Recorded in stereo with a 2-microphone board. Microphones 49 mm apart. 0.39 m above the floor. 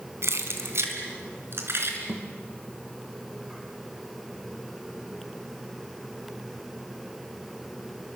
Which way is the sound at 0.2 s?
75° right (ahead or behind).